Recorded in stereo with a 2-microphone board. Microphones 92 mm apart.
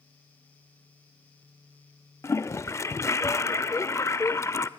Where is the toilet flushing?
30° left (ahead or behind), 0.6 m.